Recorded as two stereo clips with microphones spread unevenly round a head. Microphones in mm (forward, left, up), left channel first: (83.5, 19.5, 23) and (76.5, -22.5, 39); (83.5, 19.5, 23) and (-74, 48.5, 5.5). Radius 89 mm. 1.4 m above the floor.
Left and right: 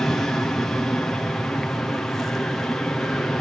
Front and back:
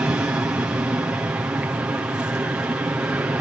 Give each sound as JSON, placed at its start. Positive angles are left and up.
{"t": 0.0, "sound": "an aircraft", "azimuth_deg": 105}